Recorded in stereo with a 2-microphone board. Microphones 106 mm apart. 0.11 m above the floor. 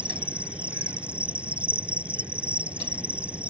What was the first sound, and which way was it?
An insect, 10° right (ahead or behind).